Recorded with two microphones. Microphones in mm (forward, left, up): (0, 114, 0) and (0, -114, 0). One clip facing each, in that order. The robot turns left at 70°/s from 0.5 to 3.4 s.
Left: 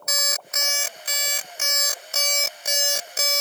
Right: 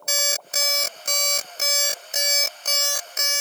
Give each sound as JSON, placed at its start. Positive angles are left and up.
{"t": 0.1, "sound": "an alarm clock", "azimuth_deg": -45}